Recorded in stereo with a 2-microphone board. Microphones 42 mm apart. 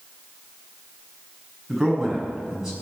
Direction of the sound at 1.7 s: 10° right (ahead or behind).